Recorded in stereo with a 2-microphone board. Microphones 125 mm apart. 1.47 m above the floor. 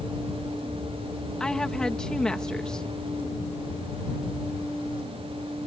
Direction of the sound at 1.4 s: 5° left (ahead or behind).